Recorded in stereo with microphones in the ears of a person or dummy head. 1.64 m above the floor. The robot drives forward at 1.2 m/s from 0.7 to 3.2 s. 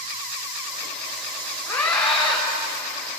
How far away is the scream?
About 4.5 m.